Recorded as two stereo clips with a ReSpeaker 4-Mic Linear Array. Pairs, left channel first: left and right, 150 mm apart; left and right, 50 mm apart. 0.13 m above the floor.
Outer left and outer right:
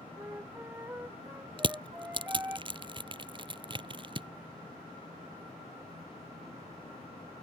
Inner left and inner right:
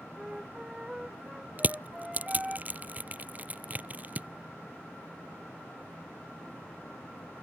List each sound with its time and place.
0.2 s a flute: 15° right (ahead or behind)
1.6 s crushing: 35° right (ahead or behind)